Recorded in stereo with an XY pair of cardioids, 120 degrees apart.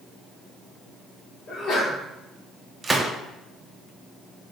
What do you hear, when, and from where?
1.5 s a sneeze: 45° left, 1.4 m
2.8 s a gunshot: 15° right, 0.6 m